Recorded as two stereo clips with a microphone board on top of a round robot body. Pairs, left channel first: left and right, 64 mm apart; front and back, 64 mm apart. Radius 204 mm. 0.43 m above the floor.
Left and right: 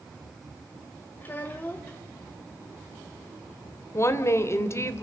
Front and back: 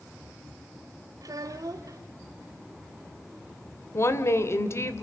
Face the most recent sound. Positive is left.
turn(degrees=45)